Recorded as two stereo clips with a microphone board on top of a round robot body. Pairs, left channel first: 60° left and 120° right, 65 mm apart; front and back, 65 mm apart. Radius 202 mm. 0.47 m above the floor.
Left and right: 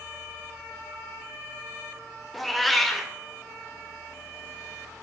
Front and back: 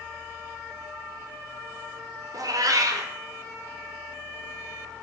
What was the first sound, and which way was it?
A cat meowing, 150° left.